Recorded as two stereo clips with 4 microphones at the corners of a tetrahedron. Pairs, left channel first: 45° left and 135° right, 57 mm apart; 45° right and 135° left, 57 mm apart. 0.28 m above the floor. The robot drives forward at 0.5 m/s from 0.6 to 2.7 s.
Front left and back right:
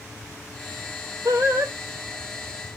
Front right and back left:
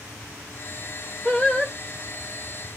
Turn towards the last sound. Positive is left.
turn(degrees=-140)